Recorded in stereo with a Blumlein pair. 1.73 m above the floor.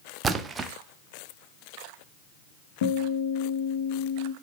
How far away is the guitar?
About 0.9 m.